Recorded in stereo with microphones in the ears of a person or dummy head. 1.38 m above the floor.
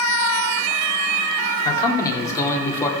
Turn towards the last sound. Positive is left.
turn(degrees=20)  # may be behind; listen again after turning